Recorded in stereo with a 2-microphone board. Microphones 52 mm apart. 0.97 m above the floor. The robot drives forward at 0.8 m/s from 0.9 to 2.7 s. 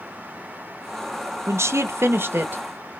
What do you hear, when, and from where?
1.5 s a woman speaking: 60° right (ahead or behind), 0.7 m; by 3.0 s 35° right (ahead or behind), 1.0 m